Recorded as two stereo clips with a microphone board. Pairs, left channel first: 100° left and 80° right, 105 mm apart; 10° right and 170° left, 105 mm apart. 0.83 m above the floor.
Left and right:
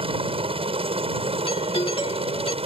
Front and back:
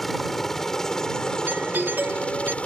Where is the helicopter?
100° right; by 2.6 s 90° right.